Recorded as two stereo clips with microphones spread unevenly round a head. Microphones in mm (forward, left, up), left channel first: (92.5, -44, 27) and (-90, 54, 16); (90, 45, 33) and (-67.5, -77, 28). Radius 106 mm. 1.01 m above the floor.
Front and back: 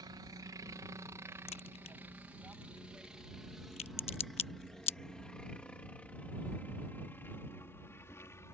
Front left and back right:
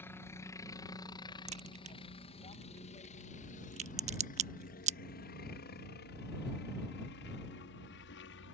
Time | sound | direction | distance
0.0 | a helicopter | 105° left | ?
1.5 | a crack | 85° right | ?